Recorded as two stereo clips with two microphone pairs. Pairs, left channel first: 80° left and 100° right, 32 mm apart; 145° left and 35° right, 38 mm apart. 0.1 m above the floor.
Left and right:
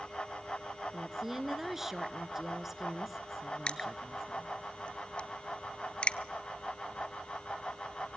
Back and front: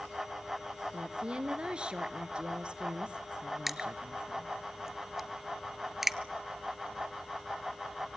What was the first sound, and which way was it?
A woman speaking, 35° right.